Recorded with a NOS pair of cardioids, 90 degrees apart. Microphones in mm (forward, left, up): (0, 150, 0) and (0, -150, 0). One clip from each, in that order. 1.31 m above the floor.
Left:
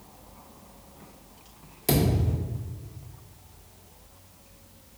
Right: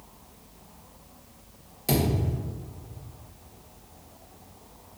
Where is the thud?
15° left, 1.8 m.